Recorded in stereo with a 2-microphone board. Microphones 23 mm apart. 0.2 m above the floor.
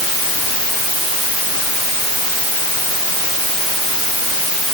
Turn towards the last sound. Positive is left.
No sound to turn to.